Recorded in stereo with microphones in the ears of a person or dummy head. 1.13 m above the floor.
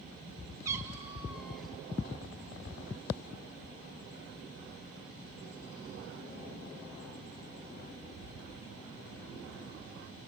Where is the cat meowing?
15° right (ahead or behind), 1.3 m; by 1.8 s 5° left (ahead or behind), 1.4 m.